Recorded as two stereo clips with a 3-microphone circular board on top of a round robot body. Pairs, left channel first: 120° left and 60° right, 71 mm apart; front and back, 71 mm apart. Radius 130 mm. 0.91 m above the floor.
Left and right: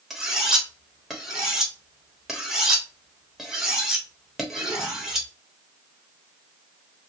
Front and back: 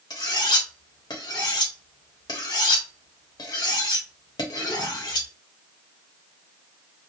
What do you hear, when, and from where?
0.1 s cutlery clinking: 25° left, 1.1 m